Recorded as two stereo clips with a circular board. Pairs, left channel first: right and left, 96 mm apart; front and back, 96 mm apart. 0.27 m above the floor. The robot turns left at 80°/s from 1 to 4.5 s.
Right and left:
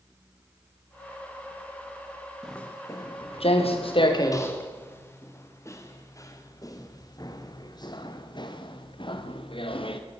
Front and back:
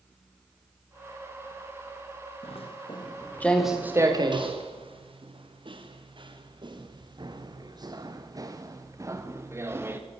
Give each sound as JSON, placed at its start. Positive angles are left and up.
{"t": 2.4, "sound": "footsteps", "azimuth_deg": 0, "distance_m": 6.0}